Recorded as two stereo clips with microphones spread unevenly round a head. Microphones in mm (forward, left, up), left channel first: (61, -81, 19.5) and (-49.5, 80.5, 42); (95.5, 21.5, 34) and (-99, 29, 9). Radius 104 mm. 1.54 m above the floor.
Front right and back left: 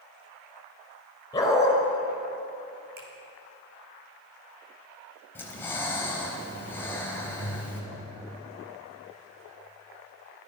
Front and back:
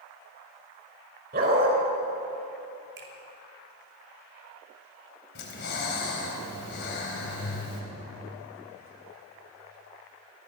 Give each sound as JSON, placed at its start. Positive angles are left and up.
{"t": 1.3, "sound": "a dog barking", "azimuth_deg": -130, "distance_m": 4.5}
{"t": 3.0, "sound": "a finger snap", "azimuth_deg": 150, "distance_m": 4.0}
{"t": 5.3, "sound": "breathing", "azimuth_deg": 25, "distance_m": 3.5}